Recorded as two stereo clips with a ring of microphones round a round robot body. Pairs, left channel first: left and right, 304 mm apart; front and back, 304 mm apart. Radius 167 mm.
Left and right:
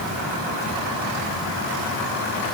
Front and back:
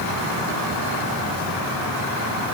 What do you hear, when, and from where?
Only background noise.